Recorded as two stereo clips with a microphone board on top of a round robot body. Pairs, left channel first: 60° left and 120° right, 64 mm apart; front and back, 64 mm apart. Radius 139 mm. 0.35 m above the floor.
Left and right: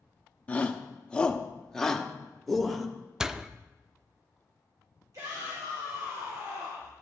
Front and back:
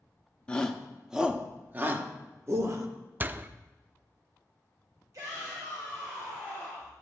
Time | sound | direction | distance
0.5 | a shout | 45° left | 0.9 m
3.2 | a door slam | 170° left | 0.5 m
5.1 | a shout | 150° right | 2.5 m